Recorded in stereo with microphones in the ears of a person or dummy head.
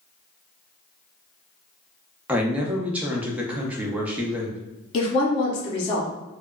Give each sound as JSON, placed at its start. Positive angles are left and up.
{"t": 2.3, "sound": "a man speaking", "side_deg": -10, "distance_m": 0.7}
{"t": 4.9, "sound": "a woman speaking", "side_deg": 25, "distance_m": 1.1}